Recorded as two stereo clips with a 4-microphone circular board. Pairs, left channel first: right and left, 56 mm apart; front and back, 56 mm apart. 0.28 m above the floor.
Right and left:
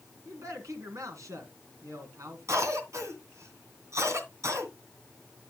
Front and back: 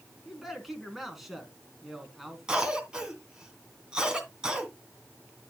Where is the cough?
105° left, 2.5 m.